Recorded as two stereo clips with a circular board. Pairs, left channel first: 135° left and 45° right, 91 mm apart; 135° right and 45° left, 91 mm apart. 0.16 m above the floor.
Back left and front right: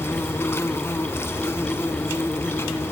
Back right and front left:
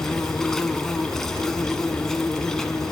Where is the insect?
145° left, 1.0 m.